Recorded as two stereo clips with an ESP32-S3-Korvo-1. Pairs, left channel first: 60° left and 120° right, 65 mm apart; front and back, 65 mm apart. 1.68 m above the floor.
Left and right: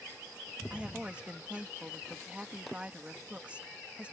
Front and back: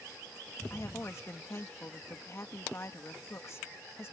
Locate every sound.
0.7 s a woman speaking: 50° right